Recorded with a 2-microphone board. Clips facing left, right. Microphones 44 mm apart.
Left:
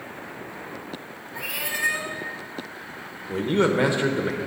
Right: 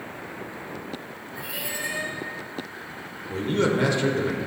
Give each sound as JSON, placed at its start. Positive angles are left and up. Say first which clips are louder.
{"t": 1.4, "sound": "a cat meowing", "louder": "left 5 dB", "side_deg": 80, "distance_m": 0.8}
{"t": 3.3, "sound": "a man speaking", "louder": "left 2 dB", "side_deg": 20, "distance_m": 0.8}